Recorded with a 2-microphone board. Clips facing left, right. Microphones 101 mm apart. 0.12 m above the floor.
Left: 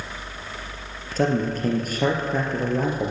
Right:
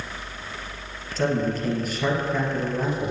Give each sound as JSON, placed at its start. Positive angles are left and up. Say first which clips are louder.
{"t": 1.2, "sound": "a man speaking", "louder": "left 1 dB", "side_deg": 45, "distance_m": 2.5}